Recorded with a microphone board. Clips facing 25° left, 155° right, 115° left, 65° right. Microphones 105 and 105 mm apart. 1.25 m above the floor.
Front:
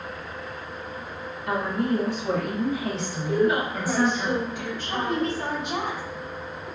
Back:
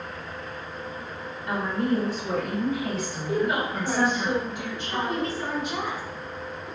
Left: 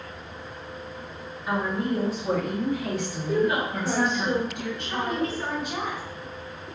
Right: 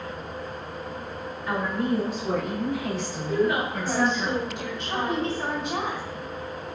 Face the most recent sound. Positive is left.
turn(degrees=-5)